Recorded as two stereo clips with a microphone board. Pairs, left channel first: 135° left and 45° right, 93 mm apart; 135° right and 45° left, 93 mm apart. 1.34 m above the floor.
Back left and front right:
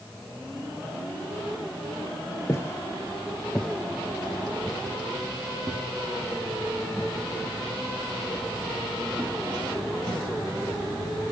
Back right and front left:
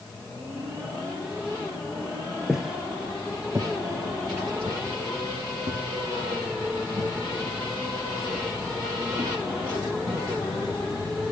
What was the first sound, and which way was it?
Footsteps, 130° left.